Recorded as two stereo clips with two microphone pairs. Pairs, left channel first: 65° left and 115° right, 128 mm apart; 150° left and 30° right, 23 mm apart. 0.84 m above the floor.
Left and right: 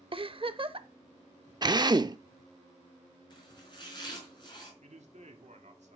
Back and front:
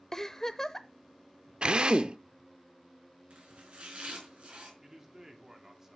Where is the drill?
65° right, 0.6 m.